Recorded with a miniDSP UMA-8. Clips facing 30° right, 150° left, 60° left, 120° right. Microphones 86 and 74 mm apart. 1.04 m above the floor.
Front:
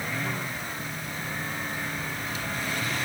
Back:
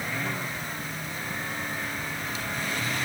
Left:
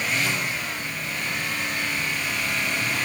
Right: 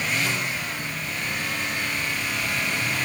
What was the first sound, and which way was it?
Only background noise.